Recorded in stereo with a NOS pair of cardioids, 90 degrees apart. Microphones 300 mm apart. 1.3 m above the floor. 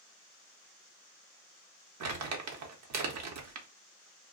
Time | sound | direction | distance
2.0 | crumpling | 65° right | 0.8 m